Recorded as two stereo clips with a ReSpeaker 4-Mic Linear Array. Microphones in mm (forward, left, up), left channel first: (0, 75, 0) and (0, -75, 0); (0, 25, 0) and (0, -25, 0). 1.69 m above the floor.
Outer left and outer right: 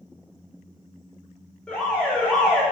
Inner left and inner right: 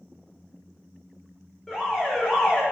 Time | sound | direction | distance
1.7 | an alarm | 5° left (ahead or behind) | 1.7 m